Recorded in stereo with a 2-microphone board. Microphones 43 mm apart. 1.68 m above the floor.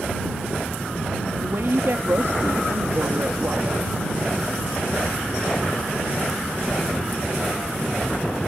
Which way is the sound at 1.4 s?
75° right (ahead or behind).